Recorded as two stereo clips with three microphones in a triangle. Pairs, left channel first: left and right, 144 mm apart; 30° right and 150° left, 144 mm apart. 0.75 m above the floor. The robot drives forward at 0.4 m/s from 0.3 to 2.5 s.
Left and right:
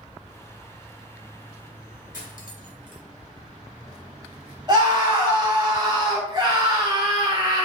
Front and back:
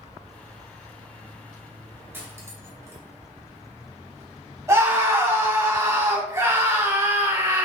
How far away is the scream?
About 2 m.